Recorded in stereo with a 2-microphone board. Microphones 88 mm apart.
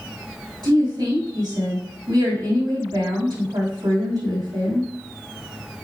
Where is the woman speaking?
50° right (ahead or behind), 4 m.